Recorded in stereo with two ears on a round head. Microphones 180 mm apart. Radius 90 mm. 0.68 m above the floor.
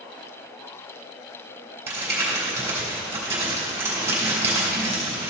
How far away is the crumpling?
About 3.5 m.